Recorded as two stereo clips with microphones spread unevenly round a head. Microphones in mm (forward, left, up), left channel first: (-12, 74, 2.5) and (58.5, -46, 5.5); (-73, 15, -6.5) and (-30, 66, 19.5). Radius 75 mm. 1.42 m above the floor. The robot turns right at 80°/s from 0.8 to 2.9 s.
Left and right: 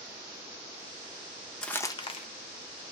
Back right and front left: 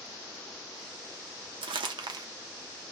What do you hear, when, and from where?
1.6 s crumpling: 35° left, 0.7 m; by 2.3 s 90° left, 0.7 m